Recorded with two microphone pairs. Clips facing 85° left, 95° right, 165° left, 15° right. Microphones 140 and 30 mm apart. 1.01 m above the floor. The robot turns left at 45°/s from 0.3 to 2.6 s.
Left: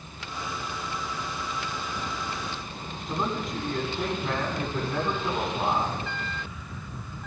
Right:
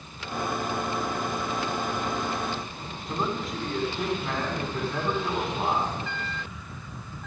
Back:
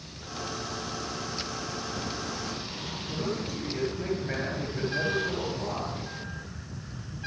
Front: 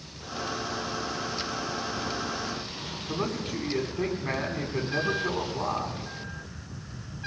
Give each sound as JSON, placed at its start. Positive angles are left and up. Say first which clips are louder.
{"t": 3.1, "sound": "a man speaking", "louder": "even, front 2 dB", "azimuth_deg": -5, "distance_m": 8.5}